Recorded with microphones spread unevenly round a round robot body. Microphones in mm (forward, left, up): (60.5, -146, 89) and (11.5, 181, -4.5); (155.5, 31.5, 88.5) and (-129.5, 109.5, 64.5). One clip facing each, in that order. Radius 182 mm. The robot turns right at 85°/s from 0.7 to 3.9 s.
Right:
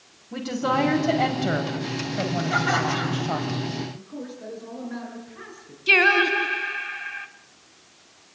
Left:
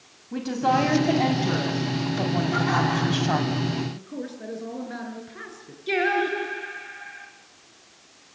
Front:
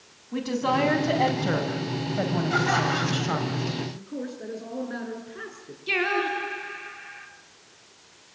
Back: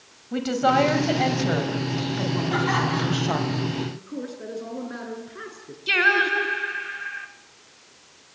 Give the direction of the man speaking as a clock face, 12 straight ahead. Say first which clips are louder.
Left 2 dB, back 1 dB; 9 o'clock.